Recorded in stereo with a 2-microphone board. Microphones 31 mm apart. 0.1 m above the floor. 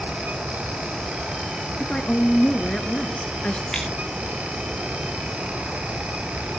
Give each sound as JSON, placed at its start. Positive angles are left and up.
{"t": 1.8, "sound": "a woman speaking", "side_deg": 30, "distance_m": 1.3}
{"t": 3.7, "sound": "scissors", "side_deg": 20, "distance_m": 5.0}